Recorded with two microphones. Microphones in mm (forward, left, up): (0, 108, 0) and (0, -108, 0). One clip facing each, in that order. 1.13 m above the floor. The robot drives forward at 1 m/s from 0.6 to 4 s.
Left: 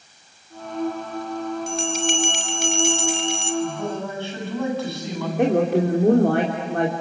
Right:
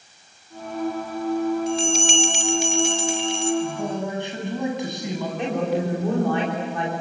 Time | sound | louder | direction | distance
1.7 | a bell | right 2 dB | 55° left (ahead or behind) | 3 m
3.6 | a man speaking | even | 20° right (ahead or behind) | 8.5 m
5.4 | a woman speaking | left 7 dB | 60° left (ahead or behind) | 3 m